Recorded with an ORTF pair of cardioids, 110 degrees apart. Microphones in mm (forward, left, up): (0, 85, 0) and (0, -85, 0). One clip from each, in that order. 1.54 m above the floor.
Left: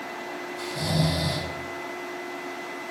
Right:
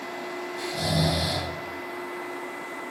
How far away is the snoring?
About 3.5 m.